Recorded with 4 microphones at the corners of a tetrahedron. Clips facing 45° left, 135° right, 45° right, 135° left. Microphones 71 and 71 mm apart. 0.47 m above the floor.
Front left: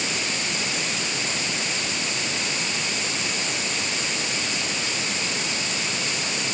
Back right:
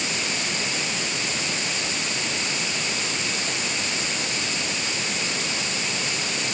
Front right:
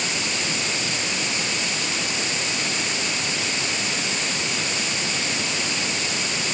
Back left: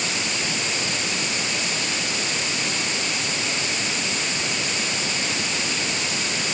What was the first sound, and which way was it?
Only background noise.